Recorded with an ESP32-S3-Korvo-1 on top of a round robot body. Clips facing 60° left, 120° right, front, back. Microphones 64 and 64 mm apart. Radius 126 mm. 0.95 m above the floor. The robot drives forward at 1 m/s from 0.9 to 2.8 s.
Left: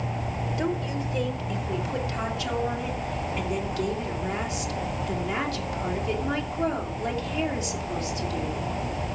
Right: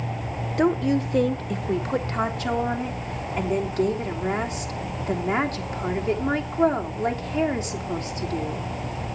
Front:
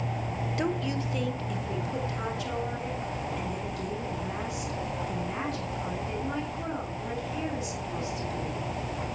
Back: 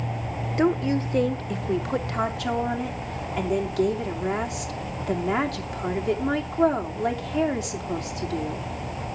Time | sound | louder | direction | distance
0.6 | a woman speaking | right 10 dB, back 9 dB | 130° right | 1.1 m